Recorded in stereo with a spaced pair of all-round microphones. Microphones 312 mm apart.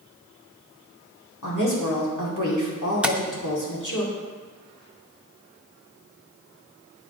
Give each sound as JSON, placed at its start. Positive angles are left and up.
{"t": 1.4, "sound": "a woman speaking", "side_deg": 75, "distance_m": 2.5}
{"t": 3.0, "sound": "tapping", "side_deg": -5, "distance_m": 0.5}